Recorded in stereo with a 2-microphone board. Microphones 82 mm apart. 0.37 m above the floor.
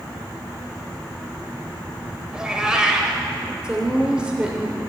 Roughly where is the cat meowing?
Centre.